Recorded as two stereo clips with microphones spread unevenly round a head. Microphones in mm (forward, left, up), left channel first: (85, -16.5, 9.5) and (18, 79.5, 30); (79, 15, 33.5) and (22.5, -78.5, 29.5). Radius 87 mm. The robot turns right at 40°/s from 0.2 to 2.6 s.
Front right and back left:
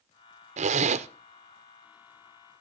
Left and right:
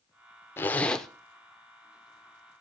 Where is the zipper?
125° left, 0.7 m; by 1.1 s 150° left, 0.7 m.